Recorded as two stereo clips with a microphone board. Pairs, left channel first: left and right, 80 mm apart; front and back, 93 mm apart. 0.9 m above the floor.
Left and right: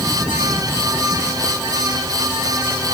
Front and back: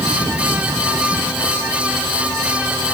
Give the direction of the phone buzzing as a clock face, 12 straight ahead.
No phone buzzing in this recording.